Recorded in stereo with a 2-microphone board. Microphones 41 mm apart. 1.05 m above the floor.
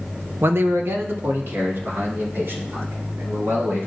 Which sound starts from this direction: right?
A man speaking, at 0.4 s.